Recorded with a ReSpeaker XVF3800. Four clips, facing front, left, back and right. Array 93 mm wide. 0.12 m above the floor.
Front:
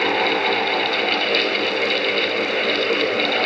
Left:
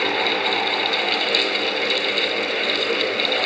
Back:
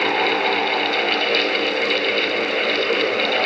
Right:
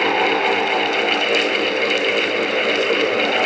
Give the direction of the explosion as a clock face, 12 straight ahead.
I don't hear an explosion.